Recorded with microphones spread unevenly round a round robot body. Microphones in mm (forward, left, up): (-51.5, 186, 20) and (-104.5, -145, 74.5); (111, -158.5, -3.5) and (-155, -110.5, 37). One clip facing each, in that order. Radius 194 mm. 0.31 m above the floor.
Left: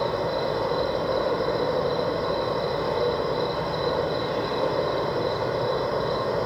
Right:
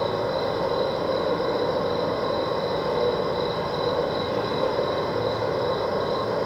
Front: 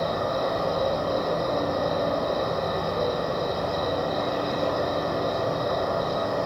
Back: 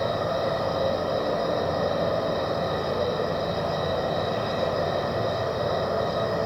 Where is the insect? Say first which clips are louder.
Right 1 dB, even; 175° left, 1.3 m.